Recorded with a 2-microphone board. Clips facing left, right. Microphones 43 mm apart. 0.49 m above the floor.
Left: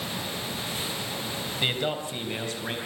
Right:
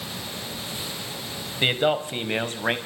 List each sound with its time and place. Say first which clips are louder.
1.6 s a man speaking: right 7 dB; 30° right (ahead or behind), 3 m; by 2.8 s 45° right (ahead or behind), 3.5 m